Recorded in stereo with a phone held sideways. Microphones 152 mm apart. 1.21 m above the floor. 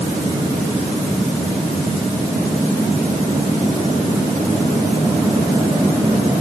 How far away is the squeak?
No squeak in this recording.